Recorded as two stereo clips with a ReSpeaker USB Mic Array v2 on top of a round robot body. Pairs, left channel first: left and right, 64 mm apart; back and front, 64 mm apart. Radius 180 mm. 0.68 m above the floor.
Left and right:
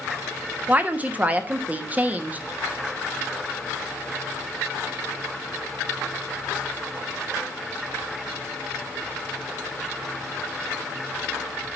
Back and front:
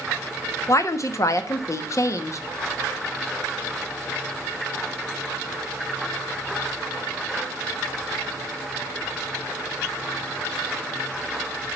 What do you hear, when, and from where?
0.7 s a woman speaking: 155° right, 1.4 m